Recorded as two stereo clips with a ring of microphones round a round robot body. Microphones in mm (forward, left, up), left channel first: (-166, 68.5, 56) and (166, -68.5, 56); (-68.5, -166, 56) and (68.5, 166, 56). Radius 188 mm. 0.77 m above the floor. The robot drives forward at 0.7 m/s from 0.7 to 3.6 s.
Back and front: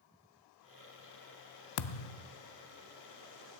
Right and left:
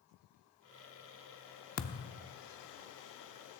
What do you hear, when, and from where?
1.8 s a thud: 175° right, 0.5 m; by 2.3 s straight behind, 0.8 m